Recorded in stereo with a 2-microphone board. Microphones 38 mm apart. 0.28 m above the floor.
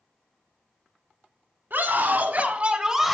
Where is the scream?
60° right (ahead or behind), 2.0 m; by 3.1 s centre (ahead or behind), 1.0 m.